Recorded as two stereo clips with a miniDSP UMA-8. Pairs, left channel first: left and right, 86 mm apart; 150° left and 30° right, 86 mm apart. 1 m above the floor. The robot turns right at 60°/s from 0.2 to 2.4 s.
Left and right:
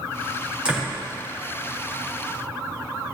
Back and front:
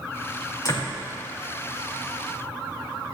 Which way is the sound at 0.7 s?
170° right.